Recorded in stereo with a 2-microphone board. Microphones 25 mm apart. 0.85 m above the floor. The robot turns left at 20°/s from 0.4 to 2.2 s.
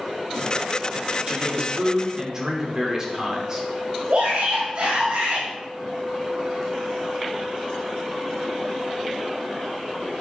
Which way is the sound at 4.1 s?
65° right (ahead or behind).